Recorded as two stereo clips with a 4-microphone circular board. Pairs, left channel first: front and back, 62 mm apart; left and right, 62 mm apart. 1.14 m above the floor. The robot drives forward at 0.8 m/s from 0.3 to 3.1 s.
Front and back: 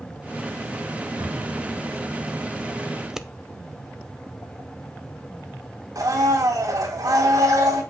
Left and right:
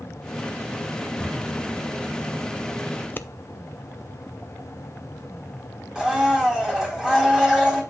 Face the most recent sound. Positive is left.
turn(degrees=-165)